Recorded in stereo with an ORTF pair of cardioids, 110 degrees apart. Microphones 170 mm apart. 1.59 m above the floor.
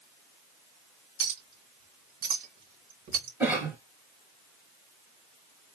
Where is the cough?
15° right, 1.8 m.